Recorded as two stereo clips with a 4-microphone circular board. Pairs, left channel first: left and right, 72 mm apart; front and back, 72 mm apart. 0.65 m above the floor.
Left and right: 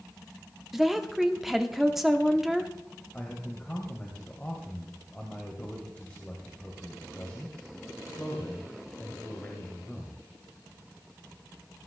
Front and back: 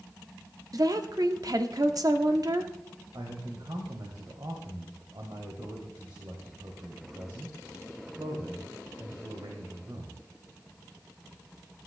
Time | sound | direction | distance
0.7 | a woman speaking | 175° right | 1.1 m
3.1 | a man speaking | 165° left | 2.5 m